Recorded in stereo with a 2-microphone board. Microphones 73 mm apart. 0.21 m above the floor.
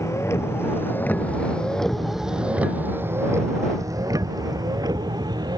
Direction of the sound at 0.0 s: 45° left (ahead or behind).